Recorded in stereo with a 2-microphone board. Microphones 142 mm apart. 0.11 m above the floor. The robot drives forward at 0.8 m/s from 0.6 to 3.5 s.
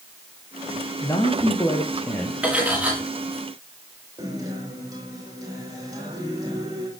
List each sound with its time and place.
1.0 s a man speaking: 20° left (ahead or behind), 3 m; by 2.3 s 15° left (ahead or behind), 4 m
2.4 s cutlery clinking: 10° right (ahead or behind), 8 m
4.2 s a guitar: 25° right (ahead or behind), 9 m